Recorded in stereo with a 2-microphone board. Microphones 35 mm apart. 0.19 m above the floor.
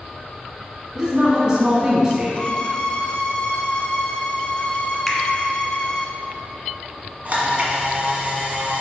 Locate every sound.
0.9 s a woman speaking: 15° right (ahead or behind), 1.4 m
2.4 s a violin: 30° left (ahead or behind), 0.6 m
5.1 s a finger snap: centre (ahead or behind), 1.3 m
7.2 s a camera shutter: 40° right (ahead or behind), 1.6 m